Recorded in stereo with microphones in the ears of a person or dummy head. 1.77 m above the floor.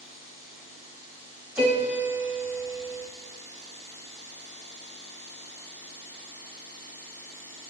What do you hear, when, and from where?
1.6 s a piano: 5° right (ahead or behind), 0.7 m